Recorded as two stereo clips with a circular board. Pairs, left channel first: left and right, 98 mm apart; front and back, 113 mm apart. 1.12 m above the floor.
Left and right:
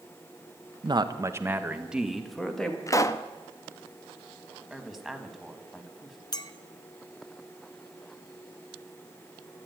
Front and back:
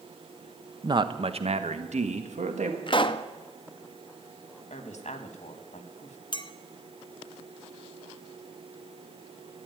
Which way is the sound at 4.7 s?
Straight ahead.